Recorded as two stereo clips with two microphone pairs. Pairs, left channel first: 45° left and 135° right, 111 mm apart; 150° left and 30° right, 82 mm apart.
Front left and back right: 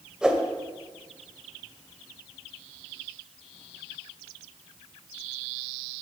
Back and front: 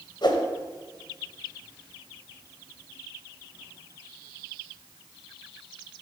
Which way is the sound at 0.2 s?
140° left.